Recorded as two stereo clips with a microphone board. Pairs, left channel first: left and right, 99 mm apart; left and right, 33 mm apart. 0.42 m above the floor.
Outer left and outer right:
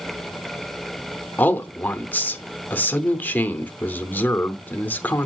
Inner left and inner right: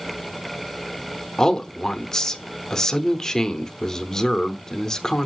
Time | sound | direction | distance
1.4 | a man speaking | 20° left (ahead or behind) | 0.8 m